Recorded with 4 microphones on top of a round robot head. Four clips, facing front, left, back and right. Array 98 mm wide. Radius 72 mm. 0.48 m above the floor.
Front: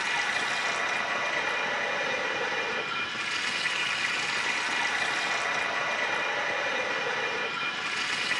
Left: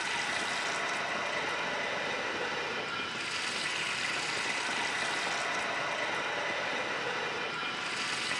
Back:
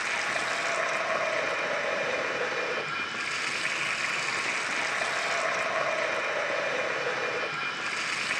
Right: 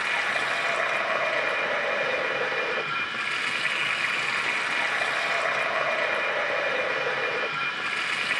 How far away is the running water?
About 1.9 m.